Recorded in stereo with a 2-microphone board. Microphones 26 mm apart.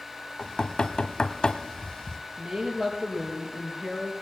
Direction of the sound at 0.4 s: 30° left (ahead or behind).